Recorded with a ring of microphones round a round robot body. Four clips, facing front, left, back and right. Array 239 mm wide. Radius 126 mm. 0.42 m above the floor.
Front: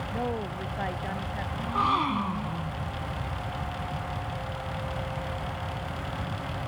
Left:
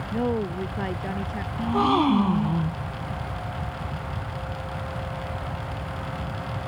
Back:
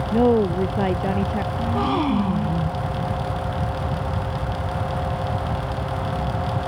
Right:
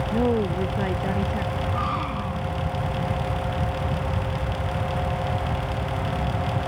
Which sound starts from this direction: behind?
A woman speaking, at 0.1 s.